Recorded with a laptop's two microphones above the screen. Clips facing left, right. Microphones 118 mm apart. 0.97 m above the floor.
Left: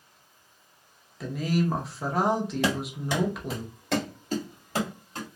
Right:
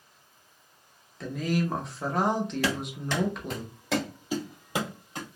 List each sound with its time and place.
1.2 s a woman speaking: 5° left (ahead or behind), 0.7 m
2.6 s running footsteps: 20° left (ahead or behind), 1.5 m; by 5.3 s 20° right (ahead or behind), 2 m